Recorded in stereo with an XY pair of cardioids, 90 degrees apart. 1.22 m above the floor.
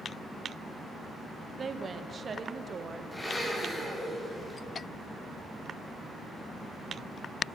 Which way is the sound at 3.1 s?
20° left.